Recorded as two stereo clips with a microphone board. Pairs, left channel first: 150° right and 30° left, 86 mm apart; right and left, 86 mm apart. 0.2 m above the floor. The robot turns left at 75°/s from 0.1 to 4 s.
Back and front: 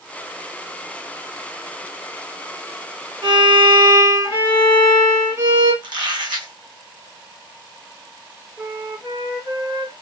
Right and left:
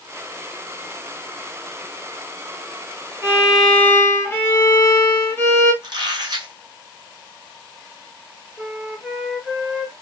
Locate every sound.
3.2 s a violin: 35° left, 1.3 m; by 5.7 s 25° right, 1.3 m
5.8 s a squeak: 55° left, 1.0 m
8.6 s a flute: 5° left, 1.8 m